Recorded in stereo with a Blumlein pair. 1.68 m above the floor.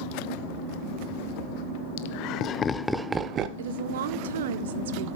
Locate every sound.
2.0 s laughter: 50° left, 1.0 m; by 3.5 s 35° right, 0.9 m
3.6 s a woman speaking: 60° right, 1.0 m